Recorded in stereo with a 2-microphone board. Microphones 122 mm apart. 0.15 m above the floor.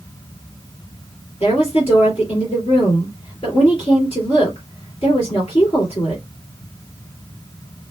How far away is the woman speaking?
About 2.5 m.